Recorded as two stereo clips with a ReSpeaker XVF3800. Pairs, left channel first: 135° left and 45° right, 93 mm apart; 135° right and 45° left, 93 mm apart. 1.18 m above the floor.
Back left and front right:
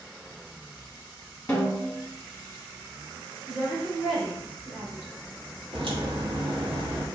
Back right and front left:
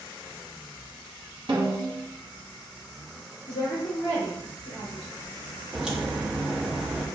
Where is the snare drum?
65° left, 0.9 m.